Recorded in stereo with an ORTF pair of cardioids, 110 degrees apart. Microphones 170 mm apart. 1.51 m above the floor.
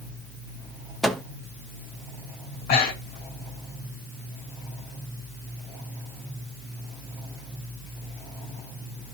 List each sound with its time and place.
1.0 s a microwave: straight ahead, 0.9 m
2.5 s breathing: 65° left, 2.5 m